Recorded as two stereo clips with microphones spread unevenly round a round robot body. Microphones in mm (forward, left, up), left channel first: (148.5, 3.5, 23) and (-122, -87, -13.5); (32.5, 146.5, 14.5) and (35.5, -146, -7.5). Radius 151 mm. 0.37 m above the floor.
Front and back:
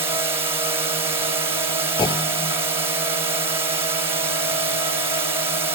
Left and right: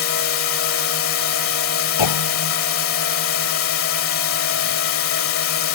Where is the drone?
125° left.